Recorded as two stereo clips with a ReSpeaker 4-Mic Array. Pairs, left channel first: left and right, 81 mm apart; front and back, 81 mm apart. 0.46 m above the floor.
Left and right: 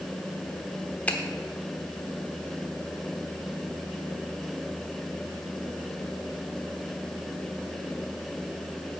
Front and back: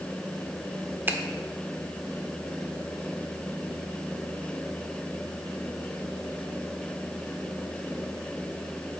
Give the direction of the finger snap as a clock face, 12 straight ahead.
7 o'clock.